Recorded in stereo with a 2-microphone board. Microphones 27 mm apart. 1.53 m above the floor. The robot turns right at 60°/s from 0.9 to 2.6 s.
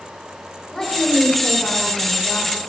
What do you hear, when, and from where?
0.7 s a woman speaking: 35° left, 5 m; by 2.6 s 135° left, 5 m